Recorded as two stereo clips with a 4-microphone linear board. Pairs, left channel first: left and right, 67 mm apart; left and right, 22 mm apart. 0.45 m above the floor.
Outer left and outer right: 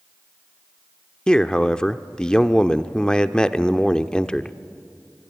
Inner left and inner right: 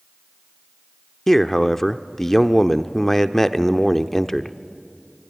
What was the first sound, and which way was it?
A man speaking, 10° left (ahead or behind).